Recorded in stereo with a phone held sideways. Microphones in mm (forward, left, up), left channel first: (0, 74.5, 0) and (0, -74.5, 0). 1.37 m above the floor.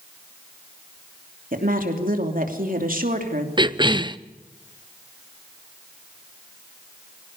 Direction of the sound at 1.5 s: 70° right (ahead or behind).